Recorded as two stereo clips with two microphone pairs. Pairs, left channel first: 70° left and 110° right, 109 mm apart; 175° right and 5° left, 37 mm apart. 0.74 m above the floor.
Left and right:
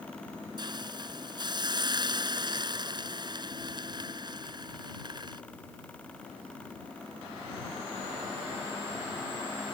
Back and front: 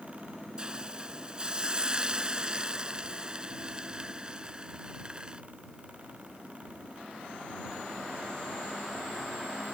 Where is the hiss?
60° right.